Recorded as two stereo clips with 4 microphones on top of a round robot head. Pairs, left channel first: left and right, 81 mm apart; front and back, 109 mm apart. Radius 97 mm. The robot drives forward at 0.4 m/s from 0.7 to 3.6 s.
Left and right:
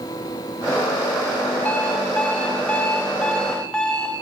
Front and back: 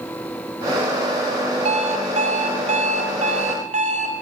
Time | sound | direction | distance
1.6 | an alarm clock | 165° left | 1.9 m